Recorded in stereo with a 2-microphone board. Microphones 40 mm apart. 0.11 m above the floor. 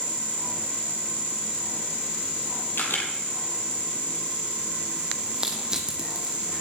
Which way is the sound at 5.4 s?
20° right (ahead or behind).